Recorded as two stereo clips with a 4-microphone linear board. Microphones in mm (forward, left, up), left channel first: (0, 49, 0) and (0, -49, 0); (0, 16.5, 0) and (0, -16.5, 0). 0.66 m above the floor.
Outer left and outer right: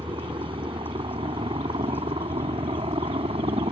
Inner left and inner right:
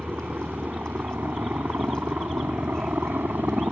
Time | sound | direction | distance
0.0 | a helicopter | 60° right (ahead or behind) | ?